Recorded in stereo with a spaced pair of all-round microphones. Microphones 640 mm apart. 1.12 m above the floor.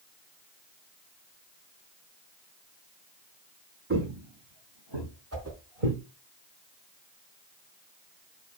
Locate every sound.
3.9 s footsteps: 20° right (ahead or behind), 2 m; by 6.0 s 65° right (ahead or behind), 3.5 m
5.3 s a whoosh: 25° right (ahead or behind), 2.5 m